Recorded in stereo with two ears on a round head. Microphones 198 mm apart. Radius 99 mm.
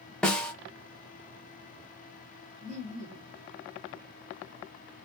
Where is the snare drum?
5° left (ahead or behind), 0.6 m.